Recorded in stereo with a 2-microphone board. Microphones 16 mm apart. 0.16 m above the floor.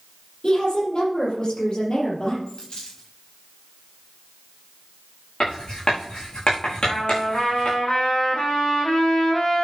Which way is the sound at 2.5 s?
70° left (ahead or behind).